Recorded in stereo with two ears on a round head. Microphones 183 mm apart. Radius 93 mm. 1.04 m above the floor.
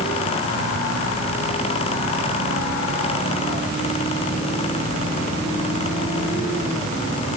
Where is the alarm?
I don't hear an alarm.